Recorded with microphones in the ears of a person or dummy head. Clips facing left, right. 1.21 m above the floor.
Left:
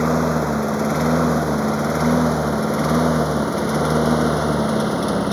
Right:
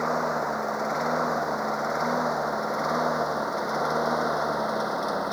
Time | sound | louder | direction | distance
0.0 | a lawn mower | left 8 dB | 45° left (ahead or behind) | ?